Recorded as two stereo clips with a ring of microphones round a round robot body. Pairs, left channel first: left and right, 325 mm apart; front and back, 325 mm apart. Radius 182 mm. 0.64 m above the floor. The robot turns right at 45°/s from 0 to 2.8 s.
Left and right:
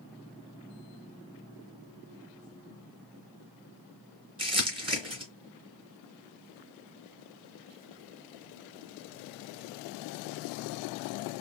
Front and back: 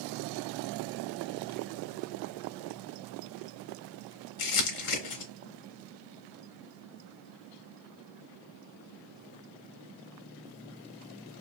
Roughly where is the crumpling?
Ahead.